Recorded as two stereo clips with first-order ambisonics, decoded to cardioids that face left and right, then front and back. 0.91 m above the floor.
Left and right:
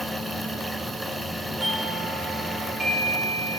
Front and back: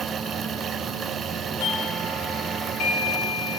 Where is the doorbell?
10° right, 2.5 m.